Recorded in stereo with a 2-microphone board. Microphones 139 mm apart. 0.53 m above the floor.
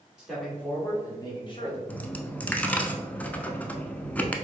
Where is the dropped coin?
10° left (ahead or behind), 0.5 m.